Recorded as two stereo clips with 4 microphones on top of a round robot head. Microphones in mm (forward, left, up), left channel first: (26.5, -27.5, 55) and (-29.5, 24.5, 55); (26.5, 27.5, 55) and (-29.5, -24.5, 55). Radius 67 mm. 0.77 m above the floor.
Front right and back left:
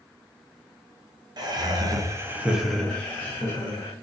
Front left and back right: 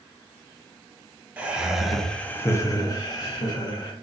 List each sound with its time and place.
1.4 s laughter: 150° left, 0.8 m; by 3.9 s 10° left, 1.1 m